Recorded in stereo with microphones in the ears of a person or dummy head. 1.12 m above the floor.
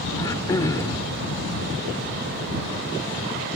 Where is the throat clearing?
20° left (ahead or behind).